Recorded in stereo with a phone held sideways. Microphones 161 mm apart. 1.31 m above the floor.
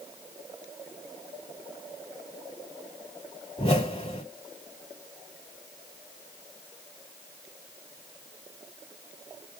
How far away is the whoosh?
About 3 m.